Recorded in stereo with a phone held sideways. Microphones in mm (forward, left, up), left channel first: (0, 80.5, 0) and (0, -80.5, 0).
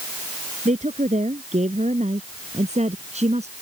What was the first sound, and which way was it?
A woman speaking, 45° right (ahead or behind).